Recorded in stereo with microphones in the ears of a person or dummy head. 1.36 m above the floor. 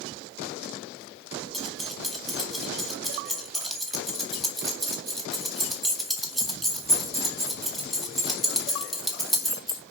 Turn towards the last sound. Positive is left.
turn(degrees=0)  # may be behind; listen again after turning